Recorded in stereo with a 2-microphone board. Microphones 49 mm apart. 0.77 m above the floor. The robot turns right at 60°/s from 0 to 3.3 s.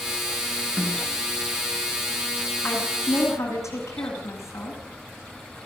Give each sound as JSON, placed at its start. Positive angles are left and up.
{"t": 0.8, "sound": "a snare drum", "side_deg": -10, "distance_m": 6.0}
{"t": 2.6, "sound": "a woman speaking", "azimuth_deg": 50, "distance_m": 9.0}